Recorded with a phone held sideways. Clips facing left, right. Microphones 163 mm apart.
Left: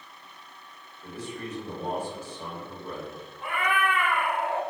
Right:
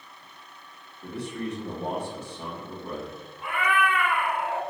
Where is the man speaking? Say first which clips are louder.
Right 4 dB; 60° right (ahead or behind), 1.9 m.